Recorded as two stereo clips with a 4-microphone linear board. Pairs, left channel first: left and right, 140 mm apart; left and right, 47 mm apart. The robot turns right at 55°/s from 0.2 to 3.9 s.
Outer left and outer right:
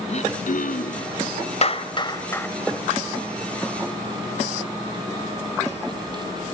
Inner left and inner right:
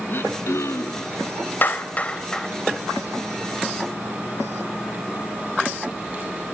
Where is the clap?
50° left (ahead or behind), 1.7 m; by 2.5 s 15° left (ahead or behind), 1.7 m.